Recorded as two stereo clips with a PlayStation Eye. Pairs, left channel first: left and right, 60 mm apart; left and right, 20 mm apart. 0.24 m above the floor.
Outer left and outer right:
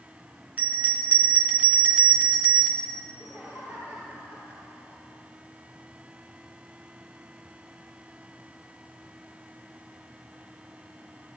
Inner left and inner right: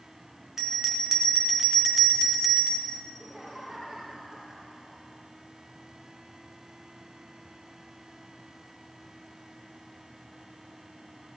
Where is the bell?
25° right (ahead or behind), 3 m.